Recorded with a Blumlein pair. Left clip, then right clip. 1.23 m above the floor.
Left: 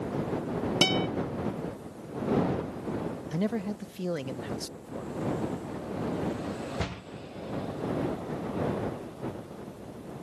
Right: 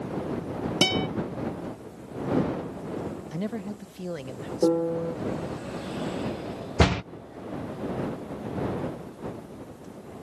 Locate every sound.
0.8 s a guitar: 10° right
3.3 s a man speaking: 10° left
4.6 s a piano: 45° right
6.8 s a door slam: 60° right